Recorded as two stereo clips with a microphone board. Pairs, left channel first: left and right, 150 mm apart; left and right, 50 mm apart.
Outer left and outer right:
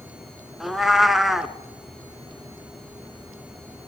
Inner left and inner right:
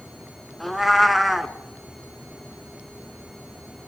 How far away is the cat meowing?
About 0.7 m.